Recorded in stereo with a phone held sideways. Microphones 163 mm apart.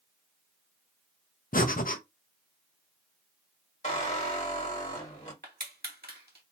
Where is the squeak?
45° left (ahead or behind), 1.4 m.